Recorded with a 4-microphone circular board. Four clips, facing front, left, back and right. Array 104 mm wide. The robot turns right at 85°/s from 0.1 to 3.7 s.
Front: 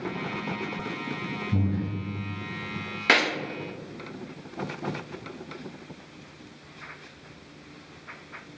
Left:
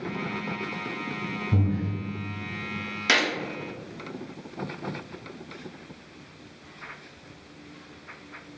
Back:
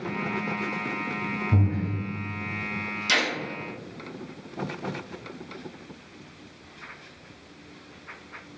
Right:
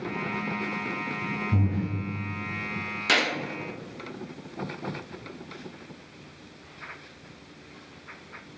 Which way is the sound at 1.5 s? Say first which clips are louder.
Left 2 dB, even; 160° left.